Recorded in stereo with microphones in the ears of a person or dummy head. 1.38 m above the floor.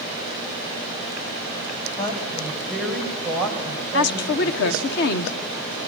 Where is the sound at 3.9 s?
60° left (ahead or behind), 1.2 m.